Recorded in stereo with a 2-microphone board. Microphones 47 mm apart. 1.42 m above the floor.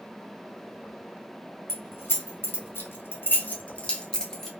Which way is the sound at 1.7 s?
50° left (ahead or behind).